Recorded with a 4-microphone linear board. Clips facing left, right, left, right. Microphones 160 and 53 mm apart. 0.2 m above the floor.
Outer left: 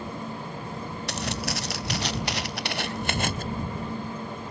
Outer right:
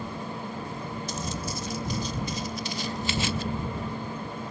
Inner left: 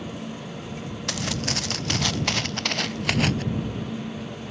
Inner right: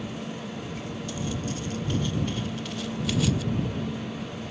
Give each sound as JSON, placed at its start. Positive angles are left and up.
{"t": 1.1, "sound": "footsteps", "side_deg": 75}